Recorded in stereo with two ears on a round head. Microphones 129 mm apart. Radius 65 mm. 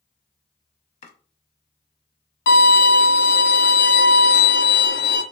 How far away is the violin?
About 0.8 m.